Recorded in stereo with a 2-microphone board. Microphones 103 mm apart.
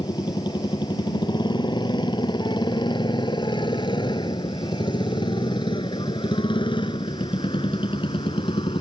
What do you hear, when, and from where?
0.0 s a motorcycle: 45° left (ahead or behind); by 8.8 s 60° left (ahead or behind)